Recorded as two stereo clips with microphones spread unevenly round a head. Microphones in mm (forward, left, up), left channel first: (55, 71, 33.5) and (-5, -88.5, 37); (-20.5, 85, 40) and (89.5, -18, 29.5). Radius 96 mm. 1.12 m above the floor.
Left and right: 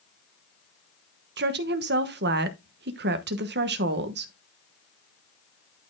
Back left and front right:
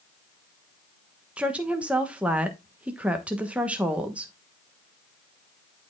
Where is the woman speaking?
125° right, 1.1 m.